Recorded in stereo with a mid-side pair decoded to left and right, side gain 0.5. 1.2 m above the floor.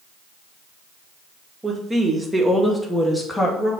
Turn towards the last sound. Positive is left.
turn(degrees=20)